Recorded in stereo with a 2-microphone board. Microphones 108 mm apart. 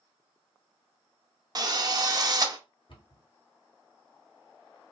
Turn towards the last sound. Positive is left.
turn(degrees=55)  # may be behind; listen again after turning